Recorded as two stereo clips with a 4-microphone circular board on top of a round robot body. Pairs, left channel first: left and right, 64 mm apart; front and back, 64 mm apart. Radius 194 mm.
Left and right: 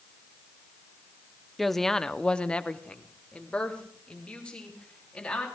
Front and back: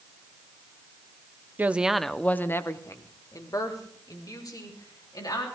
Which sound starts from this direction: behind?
A woman speaking, at 1.6 s.